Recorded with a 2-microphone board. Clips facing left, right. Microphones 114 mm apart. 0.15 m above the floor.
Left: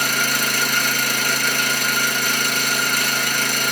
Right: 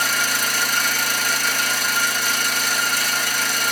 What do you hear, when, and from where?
0.0 s an engine running: 55° left (ahead or behind), 0.9 m